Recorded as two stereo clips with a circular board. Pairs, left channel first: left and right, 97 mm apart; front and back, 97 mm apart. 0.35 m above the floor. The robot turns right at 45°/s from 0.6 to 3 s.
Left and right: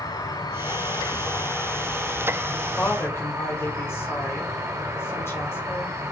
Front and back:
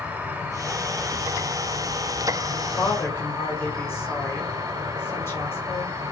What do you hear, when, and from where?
0.0 s an insect: 115° left, 0.7 m; by 6.1 s 140° right, 0.7 m
2.5 s a woman speaking: 20° left, 1.3 m; by 5.9 s 45° left, 1.3 m